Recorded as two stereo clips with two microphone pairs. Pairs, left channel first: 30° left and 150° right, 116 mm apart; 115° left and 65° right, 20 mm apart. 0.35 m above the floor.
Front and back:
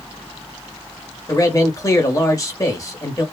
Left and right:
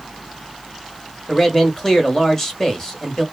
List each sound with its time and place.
1.3 s a man speaking: 60° left, 1.1 m